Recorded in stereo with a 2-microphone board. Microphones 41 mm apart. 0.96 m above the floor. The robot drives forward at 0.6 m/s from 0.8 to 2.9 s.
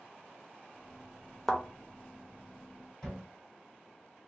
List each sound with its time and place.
1.5 s a thud: 5° left (ahead or behind), 0.7 m
3.0 s a cupboard door: 10° left (ahead or behind), 2.5 m